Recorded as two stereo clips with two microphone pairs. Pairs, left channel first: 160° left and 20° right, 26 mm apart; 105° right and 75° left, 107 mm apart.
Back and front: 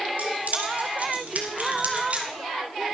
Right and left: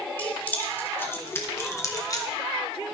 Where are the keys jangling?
30° right, 3 m; by 2.3 s 55° right, 2 m.